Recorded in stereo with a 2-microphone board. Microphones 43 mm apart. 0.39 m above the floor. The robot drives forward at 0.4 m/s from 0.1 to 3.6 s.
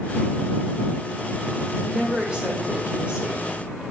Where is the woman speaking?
20° right (ahead or behind), 1.0 m; by 3.5 s 25° right (ahead or behind), 0.8 m.